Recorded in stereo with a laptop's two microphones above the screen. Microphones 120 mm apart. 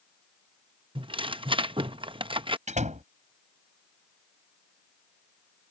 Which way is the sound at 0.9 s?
45° right (ahead or behind).